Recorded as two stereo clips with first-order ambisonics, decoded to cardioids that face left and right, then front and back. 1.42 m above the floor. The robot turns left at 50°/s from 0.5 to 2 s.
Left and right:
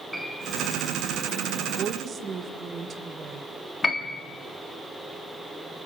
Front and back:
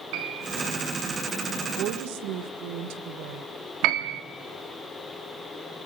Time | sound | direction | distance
0.1 | a piano | 175° right | 6 m
1.6 | a woman speaking | 140° right | 1.6 m
3.8 | a piano | 160° left | 1.5 m